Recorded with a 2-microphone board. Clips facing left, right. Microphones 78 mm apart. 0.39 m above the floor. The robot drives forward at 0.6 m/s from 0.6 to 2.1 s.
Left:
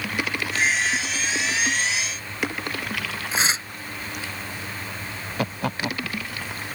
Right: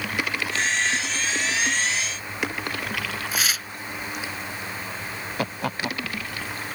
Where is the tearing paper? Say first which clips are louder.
Left 5 dB; 25° left (ahead or behind).